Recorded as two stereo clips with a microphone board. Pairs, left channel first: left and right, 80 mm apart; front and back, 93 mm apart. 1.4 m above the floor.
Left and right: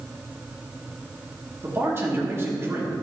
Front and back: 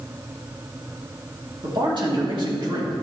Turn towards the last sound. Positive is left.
turn(degrees=-145)